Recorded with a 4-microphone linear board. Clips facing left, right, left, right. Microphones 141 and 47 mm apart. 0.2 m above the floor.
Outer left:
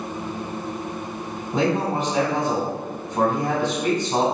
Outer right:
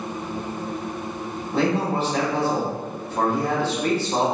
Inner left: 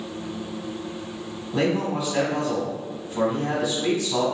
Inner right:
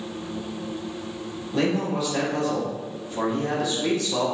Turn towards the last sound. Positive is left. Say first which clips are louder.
# even, inner left 1 dB
turn(degrees=15)  # may be behind; listen again after turning